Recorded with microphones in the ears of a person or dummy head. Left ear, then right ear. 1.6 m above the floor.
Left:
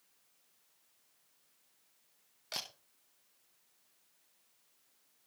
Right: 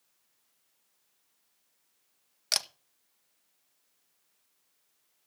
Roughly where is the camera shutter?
Right.